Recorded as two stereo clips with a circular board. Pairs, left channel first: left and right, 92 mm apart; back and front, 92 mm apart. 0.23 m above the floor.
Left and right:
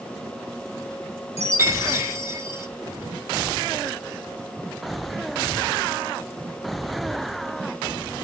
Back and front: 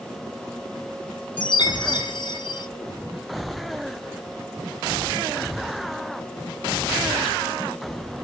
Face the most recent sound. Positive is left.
turn(degrees=-150)